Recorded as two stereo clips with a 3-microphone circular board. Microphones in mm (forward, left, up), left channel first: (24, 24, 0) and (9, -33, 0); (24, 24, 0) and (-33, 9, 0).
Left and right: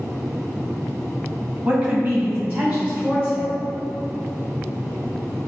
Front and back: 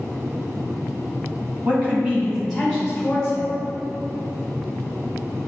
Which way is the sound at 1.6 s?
150° right.